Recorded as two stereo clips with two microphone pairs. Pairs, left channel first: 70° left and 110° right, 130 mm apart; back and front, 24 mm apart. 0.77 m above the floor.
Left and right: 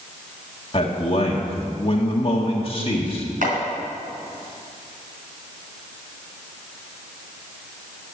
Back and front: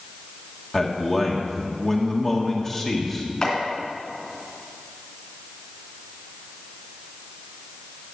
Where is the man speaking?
110° left, 1.5 m.